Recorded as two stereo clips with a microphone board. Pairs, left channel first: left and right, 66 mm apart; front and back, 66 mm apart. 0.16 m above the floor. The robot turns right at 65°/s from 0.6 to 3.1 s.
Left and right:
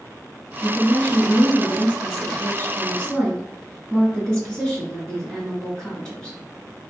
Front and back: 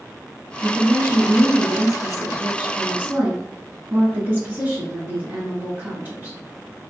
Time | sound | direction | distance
0.6 | a woman speaking | 10° right | 1.4 m